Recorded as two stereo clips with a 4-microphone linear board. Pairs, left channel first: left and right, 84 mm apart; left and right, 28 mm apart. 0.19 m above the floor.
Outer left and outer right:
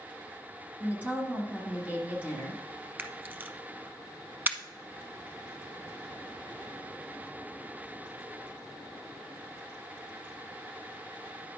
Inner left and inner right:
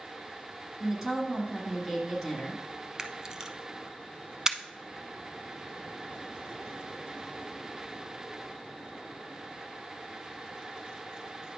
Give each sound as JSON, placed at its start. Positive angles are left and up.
{"t": 0.8, "sound": "a woman speaking", "side_deg": -20, "distance_m": 2.0}
{"t": 3.0, "sound": "a camera shutter", "side_deg": -20, "distance_m": 0.7}